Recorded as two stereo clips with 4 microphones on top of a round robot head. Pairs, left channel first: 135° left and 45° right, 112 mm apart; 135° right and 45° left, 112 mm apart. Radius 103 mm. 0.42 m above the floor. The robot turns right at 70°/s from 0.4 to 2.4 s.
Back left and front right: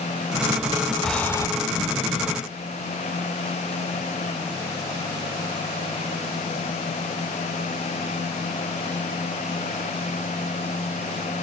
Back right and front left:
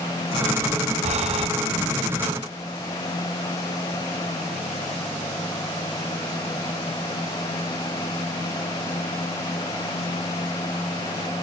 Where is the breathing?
45° left, 0.7 m; by 1.5 s 75° left, 0.7 m.